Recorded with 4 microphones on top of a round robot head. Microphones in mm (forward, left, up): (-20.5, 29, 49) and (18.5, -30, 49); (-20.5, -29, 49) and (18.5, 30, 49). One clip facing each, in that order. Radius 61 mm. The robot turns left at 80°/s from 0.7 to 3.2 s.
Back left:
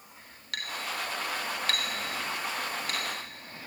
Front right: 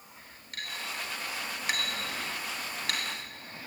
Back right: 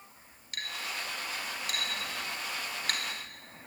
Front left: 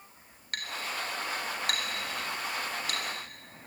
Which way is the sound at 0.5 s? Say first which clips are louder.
Back left 3 dB, front left 3 dB; 100° left.